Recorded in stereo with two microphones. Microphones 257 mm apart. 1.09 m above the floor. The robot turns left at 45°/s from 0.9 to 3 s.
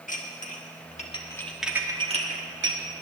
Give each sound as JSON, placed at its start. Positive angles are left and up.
{"t": 0.1, "sound": "dishes clattering", "side_deg": 30, "distance_m": 1.3}